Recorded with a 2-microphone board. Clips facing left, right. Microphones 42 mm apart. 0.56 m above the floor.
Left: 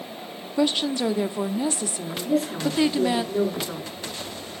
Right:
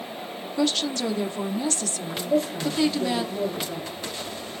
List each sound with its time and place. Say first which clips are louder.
0.6 s a woman speaking: left 2 dB; 15° left (ahead or behind), 0.8 m
2.2 s a woman speaking: even; 80° left, 8 m